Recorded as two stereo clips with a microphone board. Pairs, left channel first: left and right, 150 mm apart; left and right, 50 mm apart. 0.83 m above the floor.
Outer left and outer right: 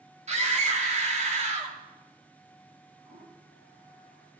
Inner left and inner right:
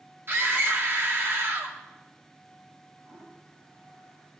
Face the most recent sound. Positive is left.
turn(degrees=-80)